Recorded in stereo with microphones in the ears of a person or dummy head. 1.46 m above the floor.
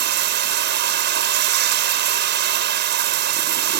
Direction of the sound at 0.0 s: 60° right (ahead or behind).